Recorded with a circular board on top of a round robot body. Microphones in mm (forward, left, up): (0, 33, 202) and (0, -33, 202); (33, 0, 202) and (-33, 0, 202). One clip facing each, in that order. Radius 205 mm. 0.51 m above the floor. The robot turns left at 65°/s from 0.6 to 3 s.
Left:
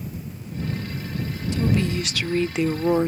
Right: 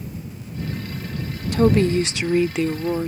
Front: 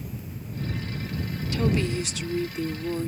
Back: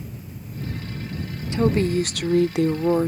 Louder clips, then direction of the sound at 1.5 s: Right 7 dB, back 6 dB; 115° right.